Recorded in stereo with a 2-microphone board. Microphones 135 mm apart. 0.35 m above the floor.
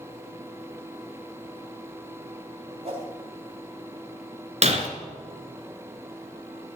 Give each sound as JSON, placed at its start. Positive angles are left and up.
{"t": 2.8, "sound": "a whoosh", "side_deg": -50, "distance_m": 3.0}
{"t": 4.6, "sound": "breaking glass", "side_deg": -55, "distance_m": 1.5}